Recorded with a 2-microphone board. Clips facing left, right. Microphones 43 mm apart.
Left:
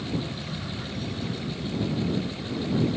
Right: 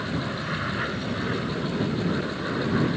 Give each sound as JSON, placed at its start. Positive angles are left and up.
{"t": 0.0, "sound": "an aircraft", "side_deg": -65}